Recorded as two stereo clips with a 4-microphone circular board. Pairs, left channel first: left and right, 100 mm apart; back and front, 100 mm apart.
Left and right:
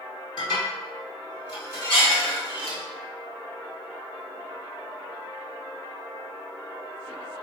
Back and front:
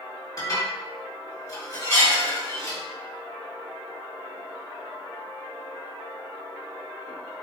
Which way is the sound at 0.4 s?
130° left.